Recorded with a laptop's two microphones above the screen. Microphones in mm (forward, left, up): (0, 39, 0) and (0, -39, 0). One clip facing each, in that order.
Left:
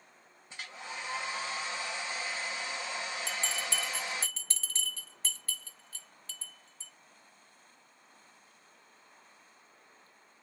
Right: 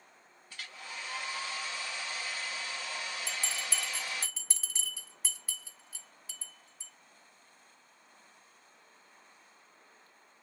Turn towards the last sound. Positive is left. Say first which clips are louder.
# left 2 dB
turn(degrees=-10)  # may be behind; listen again after turning